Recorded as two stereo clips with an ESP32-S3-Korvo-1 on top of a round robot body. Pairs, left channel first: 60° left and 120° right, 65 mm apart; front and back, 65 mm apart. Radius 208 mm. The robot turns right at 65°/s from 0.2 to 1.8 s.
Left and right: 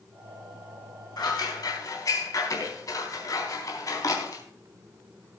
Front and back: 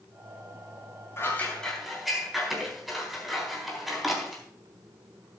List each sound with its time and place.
1.2 s scissors: 50° left, 4 m; by 4.4 s 90° left, 4 m